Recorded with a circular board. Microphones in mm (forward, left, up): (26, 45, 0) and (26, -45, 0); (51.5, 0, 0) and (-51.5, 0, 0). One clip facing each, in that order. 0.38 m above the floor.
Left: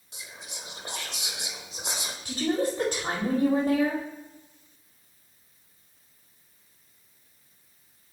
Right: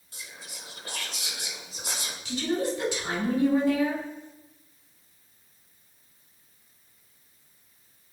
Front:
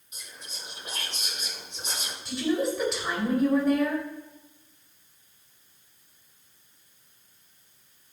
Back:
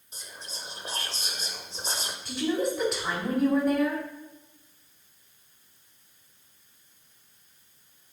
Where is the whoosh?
I don't hear a whoosh.